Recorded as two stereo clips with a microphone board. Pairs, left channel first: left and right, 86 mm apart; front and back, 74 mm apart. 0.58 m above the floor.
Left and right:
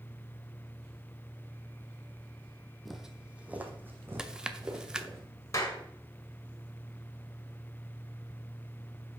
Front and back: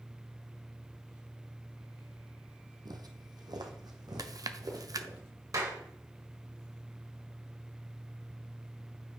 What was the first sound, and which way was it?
Footsteps, straight behind.